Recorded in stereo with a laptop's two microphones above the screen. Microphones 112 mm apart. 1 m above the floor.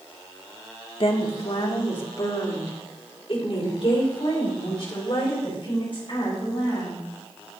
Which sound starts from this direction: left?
A woman speaking, at 1.0 s.